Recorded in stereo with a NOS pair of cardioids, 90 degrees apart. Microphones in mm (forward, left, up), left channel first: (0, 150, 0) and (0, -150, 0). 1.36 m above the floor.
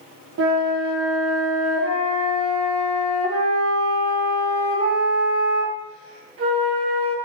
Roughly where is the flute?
Ahead right.